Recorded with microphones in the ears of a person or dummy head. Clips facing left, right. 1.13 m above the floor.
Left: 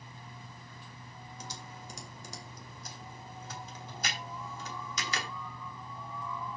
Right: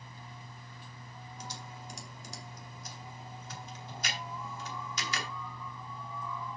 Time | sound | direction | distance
1.4 | typing on a keyboard | 80° left | 3 m